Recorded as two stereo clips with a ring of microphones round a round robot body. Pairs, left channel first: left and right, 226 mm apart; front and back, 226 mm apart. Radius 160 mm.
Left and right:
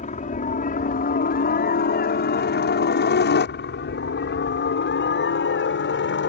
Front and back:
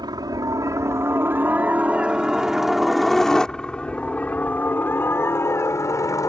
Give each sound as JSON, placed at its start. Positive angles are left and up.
{"t": 0.0, "sound": "a helicopter", "azimuth_deg": 120}